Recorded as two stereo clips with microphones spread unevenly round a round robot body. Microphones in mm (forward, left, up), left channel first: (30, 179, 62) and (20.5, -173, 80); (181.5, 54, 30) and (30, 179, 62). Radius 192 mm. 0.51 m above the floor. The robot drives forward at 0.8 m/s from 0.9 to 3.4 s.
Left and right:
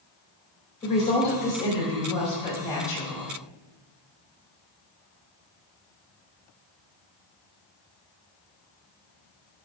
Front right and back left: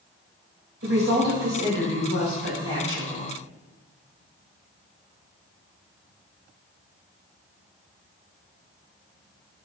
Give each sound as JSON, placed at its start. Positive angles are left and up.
{"t": 0.8, "sound": "a woman speaking", "azimuth_deg": 160, "distance_m": 3.0}